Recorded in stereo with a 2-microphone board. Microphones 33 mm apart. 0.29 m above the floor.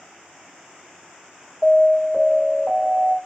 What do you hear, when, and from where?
1.6 s an alarm: 5° right (ahead or behind), 2 m